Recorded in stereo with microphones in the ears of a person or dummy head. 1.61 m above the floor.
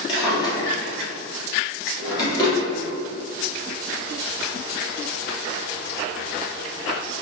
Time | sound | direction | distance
0.1 | a drawer | 20° left (ahead or behind) | 1.4 m